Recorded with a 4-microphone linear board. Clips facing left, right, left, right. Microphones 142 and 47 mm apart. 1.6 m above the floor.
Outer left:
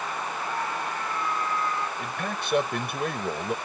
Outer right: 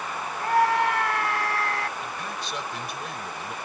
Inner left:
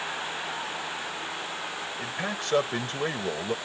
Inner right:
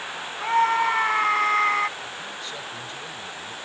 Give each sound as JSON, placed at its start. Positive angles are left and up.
{"t": 0.4, "sound": "a scream", "side_deg": -80}
{"t": 2.0, "sound": "a man speaking", "side_deg": 60}